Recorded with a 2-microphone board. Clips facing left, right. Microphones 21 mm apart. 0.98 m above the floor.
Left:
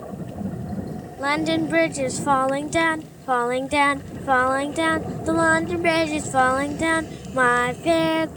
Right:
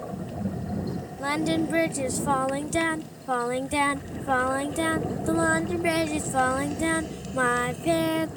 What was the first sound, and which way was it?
Singing, 20° left (ahead or behind).